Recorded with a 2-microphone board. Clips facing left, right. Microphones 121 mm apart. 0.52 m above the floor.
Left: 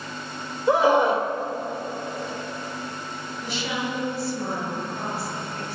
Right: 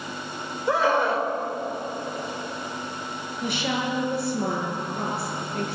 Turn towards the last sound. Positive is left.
turn(degrees=-65)  # may be behind; listen again after turning